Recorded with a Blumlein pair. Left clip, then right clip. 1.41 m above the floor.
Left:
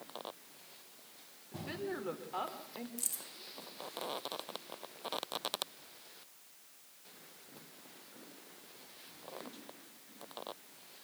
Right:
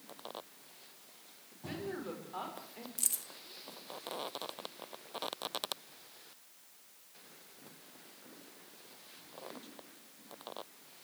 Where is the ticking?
No ticking in this recording.